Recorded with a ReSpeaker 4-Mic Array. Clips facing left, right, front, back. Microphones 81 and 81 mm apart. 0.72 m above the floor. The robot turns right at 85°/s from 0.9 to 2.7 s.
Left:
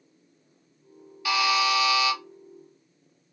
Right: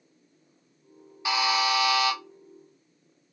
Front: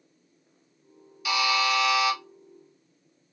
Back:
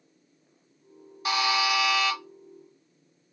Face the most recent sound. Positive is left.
turn(degrees=-25)